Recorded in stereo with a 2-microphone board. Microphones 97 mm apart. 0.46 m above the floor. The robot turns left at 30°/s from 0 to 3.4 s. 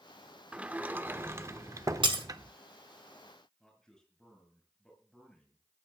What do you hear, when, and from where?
0.5 s a sliding door: 20° right, 0.6 m; by 2.5 s 80° right, 0.6 m
2.0 s breaking glass: 60° right (ahead or behind), 1.3 m; by 2.2 s 65° right (ahead or behind), 1.3 m
3.6 s a man speaking: 5° left (ahead or behind), 5.5 m